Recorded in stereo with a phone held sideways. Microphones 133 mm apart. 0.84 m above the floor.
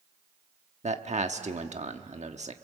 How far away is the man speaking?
About 1.2 m.